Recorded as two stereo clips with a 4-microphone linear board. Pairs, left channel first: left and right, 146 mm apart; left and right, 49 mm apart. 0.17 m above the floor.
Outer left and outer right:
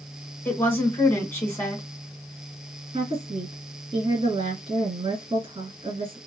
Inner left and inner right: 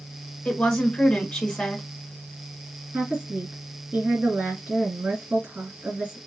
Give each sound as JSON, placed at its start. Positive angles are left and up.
{"t": 0.5, "sound": "a woman speaking", "side_deg": 15, "distance_m": 1.4}
{"t": 2.9, "sound": "a woman speaking", "side_deg": -40, "distance_m": 1.8}